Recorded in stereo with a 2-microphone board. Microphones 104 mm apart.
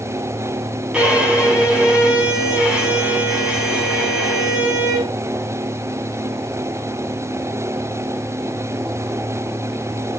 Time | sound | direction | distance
0.9 | a violin | 10° right (ahead or behind) | 4.5 m